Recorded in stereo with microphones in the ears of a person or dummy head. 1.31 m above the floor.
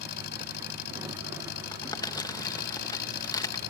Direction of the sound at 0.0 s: 55° left (ahead or behind).